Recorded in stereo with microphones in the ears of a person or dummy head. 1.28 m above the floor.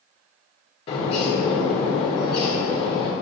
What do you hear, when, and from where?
0.9 s a bird: 30° left (ahead or behind), 1.5 m